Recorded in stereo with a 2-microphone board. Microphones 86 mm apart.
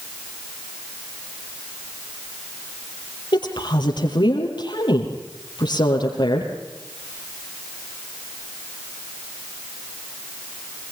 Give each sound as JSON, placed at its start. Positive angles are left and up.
{"t": 3.3, "sound": "a woman speaking", "side_deg": 65, "distance_m": 4.5}